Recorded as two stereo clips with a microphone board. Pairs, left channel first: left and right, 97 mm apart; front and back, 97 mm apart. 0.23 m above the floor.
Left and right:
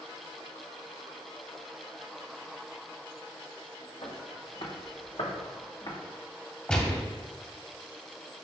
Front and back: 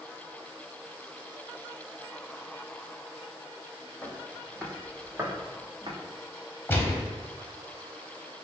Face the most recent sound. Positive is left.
turn(degrees=25)